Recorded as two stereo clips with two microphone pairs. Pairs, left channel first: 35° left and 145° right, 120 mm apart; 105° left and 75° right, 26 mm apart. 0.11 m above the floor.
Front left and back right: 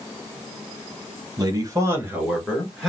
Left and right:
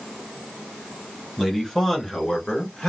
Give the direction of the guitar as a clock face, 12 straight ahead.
No guitar in this recording.